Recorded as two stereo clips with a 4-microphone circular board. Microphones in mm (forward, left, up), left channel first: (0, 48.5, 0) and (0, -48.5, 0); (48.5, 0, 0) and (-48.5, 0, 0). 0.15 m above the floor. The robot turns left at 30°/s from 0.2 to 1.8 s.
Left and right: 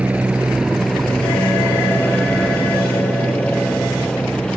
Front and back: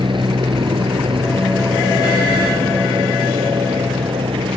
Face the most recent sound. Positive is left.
turn(degrees=170)